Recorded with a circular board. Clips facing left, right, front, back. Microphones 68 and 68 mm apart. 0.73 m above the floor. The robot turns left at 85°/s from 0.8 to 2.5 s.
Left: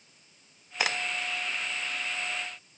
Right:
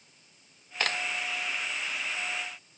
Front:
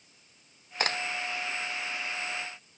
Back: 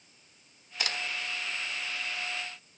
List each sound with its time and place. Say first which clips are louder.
0.8 s a crack: left 1 dB, front 5 dB; 15° left, 0.9 m; by 1.0 s straight ahead, 0.9 m